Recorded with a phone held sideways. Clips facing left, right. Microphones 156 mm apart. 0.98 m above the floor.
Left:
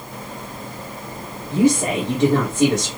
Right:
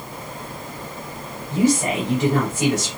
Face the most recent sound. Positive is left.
turn(degrees=30)  # may be behind; listen again after turning